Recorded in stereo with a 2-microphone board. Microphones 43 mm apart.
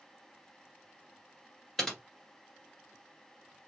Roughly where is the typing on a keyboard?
Centre.